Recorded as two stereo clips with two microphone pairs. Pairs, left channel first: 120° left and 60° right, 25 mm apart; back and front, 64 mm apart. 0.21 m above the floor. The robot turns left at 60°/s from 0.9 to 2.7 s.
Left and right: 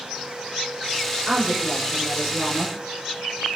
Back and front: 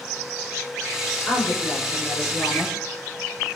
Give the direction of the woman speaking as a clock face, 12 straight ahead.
4 o'clock.